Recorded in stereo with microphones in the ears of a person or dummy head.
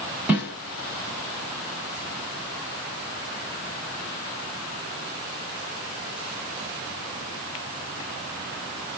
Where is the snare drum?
10° right (ahead or behind), 1.6 m.